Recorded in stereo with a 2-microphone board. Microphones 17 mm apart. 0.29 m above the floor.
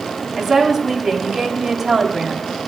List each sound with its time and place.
0.4 s a woman speaking: 15° right (ahead or behind), 2 m